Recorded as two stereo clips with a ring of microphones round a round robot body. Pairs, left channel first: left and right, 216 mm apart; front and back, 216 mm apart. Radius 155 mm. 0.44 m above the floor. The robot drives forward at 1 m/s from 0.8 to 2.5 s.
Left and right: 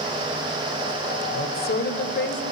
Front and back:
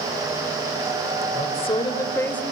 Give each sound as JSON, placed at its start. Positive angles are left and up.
{"t": 1.3, "sound": "a woman speaking", "azimuth_deg": 50, "distance_m": 2.5}